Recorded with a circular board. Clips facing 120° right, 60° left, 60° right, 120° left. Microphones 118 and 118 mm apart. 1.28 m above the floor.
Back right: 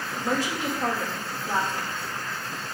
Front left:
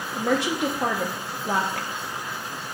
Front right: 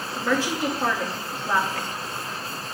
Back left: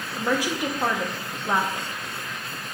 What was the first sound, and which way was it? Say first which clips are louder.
A woman speaking: front left 4 dB, front right 1 dB; 45° left.